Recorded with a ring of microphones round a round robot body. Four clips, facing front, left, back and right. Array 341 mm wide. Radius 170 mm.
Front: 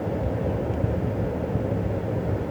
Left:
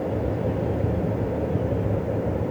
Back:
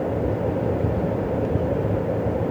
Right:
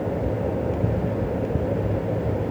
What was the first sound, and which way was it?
Only background noise.